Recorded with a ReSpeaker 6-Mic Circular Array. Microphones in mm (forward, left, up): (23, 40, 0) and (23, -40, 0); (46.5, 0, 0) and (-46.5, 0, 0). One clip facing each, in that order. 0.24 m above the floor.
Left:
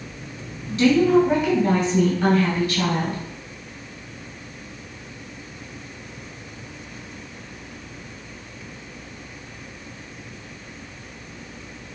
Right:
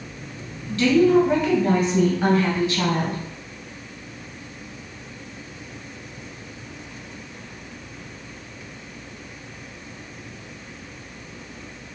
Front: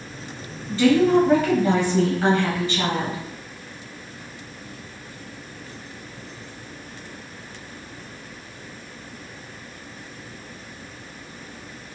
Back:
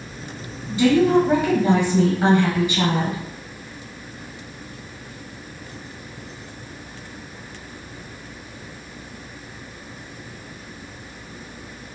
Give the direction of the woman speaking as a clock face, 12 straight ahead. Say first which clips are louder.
Even, even; 8 o'clock.